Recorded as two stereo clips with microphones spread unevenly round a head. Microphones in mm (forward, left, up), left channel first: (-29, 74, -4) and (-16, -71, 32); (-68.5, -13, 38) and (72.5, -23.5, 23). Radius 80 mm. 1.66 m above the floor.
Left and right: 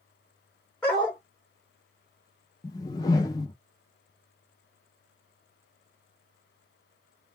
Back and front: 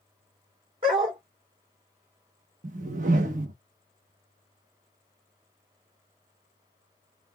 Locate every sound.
0.8 s a dog barking: 10° right, 1.4 m
2.6 s a whoosh: 30° left, 0.6 m